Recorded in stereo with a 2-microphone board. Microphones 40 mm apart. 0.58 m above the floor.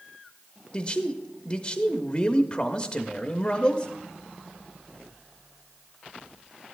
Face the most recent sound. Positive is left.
turn(degrees=20)  # may be behind; listen again after turning